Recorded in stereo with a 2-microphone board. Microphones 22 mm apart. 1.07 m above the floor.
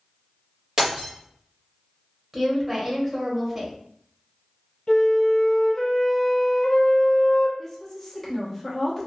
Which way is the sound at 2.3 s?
20° right (ahead or behind).